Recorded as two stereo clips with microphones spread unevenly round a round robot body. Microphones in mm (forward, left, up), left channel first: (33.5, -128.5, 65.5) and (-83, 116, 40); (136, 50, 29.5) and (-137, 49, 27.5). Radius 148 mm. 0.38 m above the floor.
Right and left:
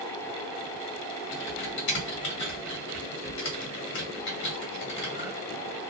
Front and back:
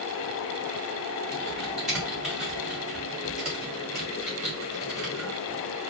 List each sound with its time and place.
1.3 s typing on a keyboard: 95° right, 1.2 m